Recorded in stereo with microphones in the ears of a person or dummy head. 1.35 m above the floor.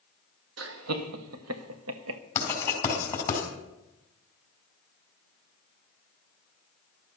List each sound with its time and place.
0.6 s laughter: 65° right (ahead or behind), 1.4 m; by 2.2 s 75° right (ahead or behind), 1.0 m
2.4 s writing: 20° left (ahead or behind), 4 m